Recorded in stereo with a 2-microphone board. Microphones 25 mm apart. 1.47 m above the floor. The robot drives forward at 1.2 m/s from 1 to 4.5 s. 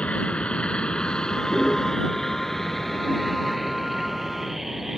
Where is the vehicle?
50° left (ahead or behind); by 5.0 s 15° right (ahead or behind).